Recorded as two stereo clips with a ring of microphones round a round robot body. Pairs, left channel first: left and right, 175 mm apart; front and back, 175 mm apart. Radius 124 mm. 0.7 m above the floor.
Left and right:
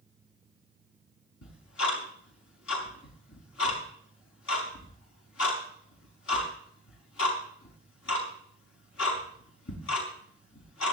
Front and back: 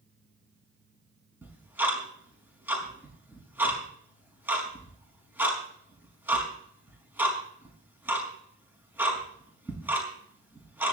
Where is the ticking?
100° left, 5 m.